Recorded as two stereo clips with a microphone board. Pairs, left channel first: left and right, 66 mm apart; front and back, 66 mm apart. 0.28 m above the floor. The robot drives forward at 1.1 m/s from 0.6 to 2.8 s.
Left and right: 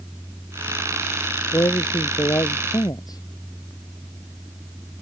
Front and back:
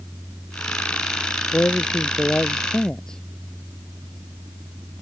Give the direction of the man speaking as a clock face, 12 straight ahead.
10 o'clock.